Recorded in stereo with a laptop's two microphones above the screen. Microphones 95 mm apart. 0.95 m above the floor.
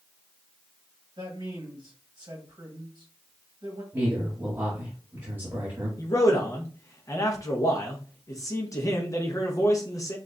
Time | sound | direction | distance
1.2 | a man speaking | 45° right (ahead or behind) | 1.2 m
3.9 | a man speaking | 25° right (ahead or behind) | 1.5 m
6.0 | a man speaking | 35° left (ahead or behind) | 0.8 m